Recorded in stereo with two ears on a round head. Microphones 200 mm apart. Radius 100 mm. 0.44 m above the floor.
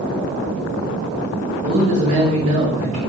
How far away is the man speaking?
About 3.5 m.